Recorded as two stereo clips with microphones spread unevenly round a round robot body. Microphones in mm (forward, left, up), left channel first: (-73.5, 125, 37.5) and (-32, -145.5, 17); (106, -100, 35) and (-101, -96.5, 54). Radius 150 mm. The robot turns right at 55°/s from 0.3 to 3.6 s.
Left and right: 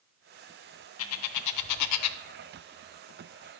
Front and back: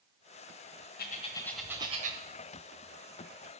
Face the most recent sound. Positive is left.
turn(degrees=-160)